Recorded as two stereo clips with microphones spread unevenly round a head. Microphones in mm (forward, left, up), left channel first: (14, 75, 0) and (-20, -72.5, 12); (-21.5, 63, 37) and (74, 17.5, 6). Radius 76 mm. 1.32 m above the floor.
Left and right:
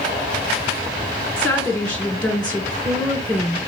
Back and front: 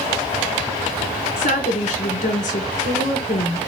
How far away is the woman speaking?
About 1.6 m.